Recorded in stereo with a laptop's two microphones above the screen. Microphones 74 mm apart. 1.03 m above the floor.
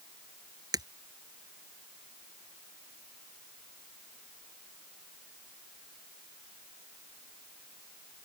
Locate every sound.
0.7 s breaking glass: 60° right (ahead or behind)